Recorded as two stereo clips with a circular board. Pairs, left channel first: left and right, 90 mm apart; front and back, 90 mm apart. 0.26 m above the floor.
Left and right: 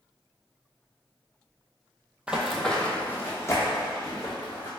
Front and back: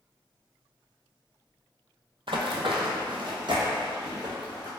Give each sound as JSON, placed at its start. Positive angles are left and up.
{"t": 2.3, "sound": "running footsteps", "azimuth_deg": -165, "distance_m": 0.5}